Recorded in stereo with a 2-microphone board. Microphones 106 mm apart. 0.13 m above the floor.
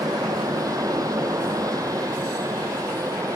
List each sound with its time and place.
0.0 s an aircraft: 35° right (ahead or behind); by 3.4 s 30° right (ahead or behind)